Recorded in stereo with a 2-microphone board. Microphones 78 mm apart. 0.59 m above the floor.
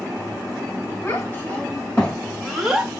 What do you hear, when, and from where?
1.0 s a child speaking: 30° left (ahead or behind), 3 m; by 2.9 s 10° right (ahead or behind), 1.9 m